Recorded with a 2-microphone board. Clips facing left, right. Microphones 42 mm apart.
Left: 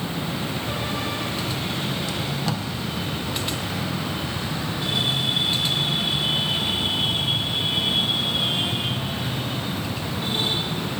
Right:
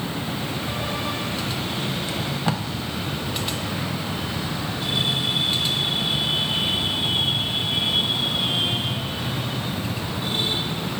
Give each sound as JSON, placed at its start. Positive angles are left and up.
{"t": 2.1, "sound": "tape being pulled", "side_deg": -30, "distance_m": 0.6}